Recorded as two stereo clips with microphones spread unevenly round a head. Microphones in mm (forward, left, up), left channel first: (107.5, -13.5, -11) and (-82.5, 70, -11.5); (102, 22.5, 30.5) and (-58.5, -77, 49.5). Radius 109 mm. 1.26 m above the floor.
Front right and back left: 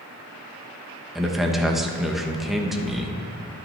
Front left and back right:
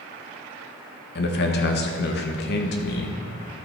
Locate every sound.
1.1 s a man speaking: 70° left, 1.3 m